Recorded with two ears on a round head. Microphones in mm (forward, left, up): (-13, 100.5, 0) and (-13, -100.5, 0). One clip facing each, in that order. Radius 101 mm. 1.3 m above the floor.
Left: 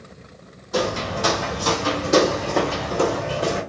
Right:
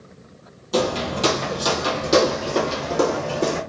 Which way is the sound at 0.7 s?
50° right (ahead or behind).